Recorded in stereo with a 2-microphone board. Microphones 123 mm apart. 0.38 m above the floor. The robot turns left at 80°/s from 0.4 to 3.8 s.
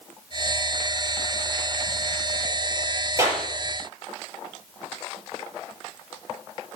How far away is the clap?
About 6 m.